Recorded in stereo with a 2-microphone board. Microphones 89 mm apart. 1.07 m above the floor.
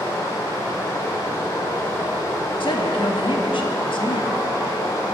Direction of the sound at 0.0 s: 40° left (ahead or behind).